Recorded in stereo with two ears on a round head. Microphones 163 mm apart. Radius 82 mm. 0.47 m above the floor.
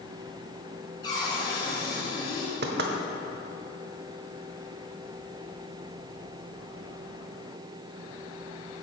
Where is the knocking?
60° right (ahead or behind), 1.1 m.